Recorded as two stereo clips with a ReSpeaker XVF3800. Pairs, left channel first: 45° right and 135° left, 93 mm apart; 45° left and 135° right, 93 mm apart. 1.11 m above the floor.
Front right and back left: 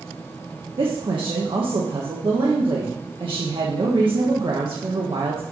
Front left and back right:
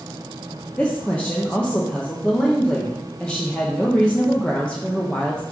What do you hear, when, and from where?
0.8 s a woman speaking: 120° left, 1.1 m